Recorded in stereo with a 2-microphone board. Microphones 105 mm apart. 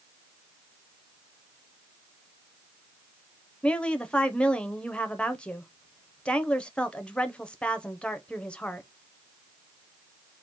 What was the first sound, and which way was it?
A woman speaking, 10° left (ahead or behind).